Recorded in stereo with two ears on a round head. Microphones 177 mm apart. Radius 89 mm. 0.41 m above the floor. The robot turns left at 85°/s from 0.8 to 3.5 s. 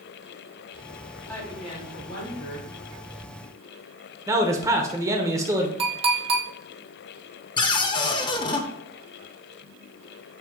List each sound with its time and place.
1.3 s a woman speaking: 175° left, 3 m; by 2.7 s 55° left, 3 m
4.3 s a man speaking: 15° right (ahead or behind), 1.1 m
5.8 s a clink: 30° right (ahead or behind), 2 m
7.6 s a cupboard door: 25° left (ahead or behind), 0.7 m